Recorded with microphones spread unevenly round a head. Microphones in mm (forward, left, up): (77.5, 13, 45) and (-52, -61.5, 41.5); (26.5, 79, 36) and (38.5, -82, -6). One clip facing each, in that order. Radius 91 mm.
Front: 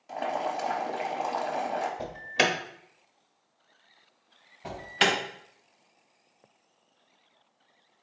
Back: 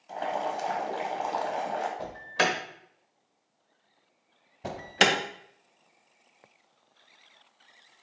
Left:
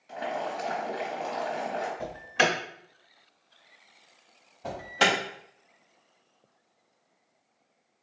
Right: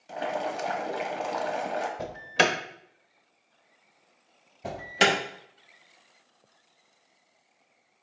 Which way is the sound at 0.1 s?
50° right.